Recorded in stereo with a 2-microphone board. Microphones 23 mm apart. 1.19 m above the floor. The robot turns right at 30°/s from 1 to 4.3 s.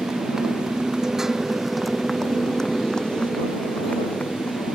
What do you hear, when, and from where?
0.0 s a motorcycle: 25° right (ahead or behind); by 4.8 s 70° left (ahead or behind)